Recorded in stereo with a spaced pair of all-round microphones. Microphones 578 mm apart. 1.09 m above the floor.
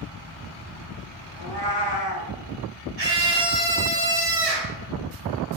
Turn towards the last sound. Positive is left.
turn(degrees=-75)  # may be behind; listen again after turning